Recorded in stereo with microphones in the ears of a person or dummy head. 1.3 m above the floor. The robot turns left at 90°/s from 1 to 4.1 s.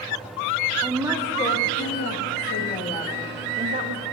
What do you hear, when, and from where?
0.8 s a woman speaking: 165° right, 1.5 m; by 4.0 s 75° right, 1.5 m